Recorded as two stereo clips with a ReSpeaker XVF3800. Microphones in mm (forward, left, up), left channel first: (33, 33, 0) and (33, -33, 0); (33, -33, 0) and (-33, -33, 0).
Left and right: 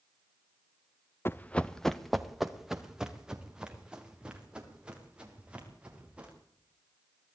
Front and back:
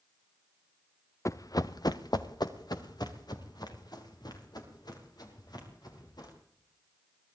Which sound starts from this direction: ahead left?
Running footsteps, at 1.2 s.